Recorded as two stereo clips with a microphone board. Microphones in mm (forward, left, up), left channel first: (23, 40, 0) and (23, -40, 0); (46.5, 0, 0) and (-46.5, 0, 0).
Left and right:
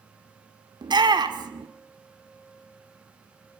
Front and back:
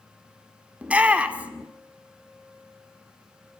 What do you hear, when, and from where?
0.8 s a shout: 105° right, 2 m